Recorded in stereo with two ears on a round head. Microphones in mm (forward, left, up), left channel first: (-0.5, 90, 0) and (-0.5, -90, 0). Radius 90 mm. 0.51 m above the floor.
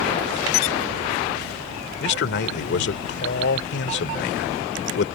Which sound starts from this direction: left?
A man speaking, at 2.0 s.